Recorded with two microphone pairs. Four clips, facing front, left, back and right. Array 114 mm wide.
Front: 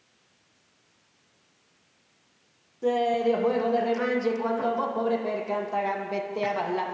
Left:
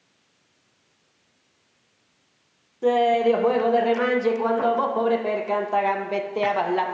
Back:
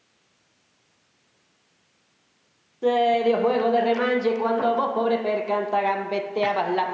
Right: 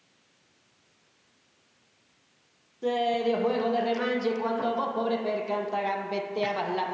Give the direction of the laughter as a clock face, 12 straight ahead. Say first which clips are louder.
Left 7 dB, back 4 dB; 8 o'clock.